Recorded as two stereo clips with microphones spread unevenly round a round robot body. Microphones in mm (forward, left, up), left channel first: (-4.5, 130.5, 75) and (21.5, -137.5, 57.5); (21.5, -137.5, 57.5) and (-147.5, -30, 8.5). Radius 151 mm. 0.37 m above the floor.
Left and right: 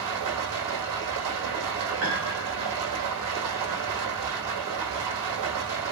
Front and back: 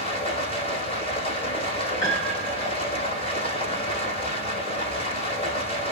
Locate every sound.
0.0 s running water: 95° right, 4.5 m
2.0 s a piano: 60° right, 3 m